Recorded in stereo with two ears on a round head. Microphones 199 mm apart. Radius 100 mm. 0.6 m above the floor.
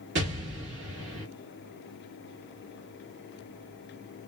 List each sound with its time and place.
0.1 s an explosion: 55° right (ahead or behind), 1.3 m